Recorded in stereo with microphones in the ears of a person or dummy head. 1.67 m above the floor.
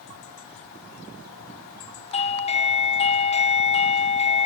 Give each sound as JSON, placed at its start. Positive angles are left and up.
{"t": 2.1, "sound": "a doorbell", "side_deg": 25, "distance_m": 0.9}